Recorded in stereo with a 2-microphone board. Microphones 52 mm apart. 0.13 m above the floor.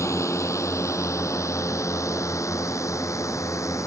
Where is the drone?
70° left (ahead or behind); by 3.9 s 75° left (ahead or behind).